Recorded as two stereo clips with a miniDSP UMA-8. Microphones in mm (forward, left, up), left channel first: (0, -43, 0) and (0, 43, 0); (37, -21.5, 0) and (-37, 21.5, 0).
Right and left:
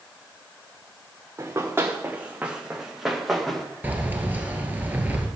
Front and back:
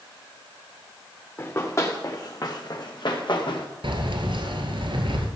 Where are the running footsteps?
30° left, 2.5 m; by 3.7 s 5° right, 3 m.